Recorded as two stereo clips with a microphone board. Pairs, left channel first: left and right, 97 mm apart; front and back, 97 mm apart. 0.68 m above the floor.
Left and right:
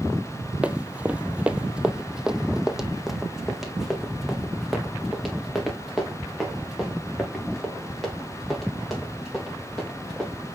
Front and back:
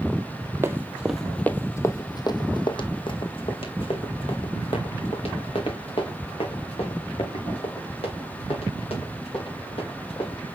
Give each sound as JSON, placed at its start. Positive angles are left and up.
{"t": 0.6, "sound": "running footsteps", "azimuth_deg": -155, "distance_m": 0.7}